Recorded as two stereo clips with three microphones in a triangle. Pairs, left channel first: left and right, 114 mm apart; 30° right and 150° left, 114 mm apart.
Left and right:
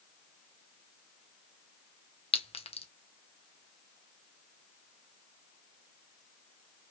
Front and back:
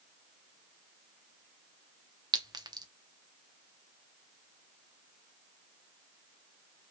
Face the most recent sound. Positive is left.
turn(degrees=105)